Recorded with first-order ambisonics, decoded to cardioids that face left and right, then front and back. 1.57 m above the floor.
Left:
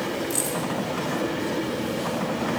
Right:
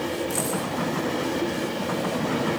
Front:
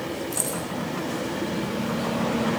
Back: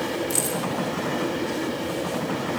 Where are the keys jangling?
170° left, 6 m.